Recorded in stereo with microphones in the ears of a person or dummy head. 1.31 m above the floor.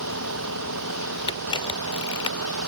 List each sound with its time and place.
0.0 s a vehicle: 75° right (ahead or behind)
1.3 s a camera shutter: 25° left (ahead or behind)